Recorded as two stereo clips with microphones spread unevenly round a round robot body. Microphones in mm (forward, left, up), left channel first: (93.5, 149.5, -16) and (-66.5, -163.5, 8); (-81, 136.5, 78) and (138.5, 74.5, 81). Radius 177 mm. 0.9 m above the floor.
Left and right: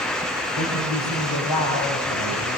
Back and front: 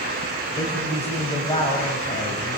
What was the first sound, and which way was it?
A woman speaking, 100° left.